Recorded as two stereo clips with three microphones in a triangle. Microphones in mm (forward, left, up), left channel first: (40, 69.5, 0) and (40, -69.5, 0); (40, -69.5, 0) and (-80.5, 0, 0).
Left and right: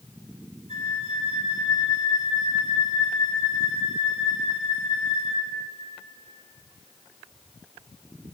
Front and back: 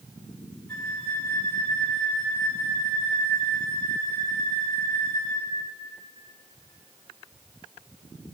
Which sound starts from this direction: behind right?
A flute, at 0.7 s.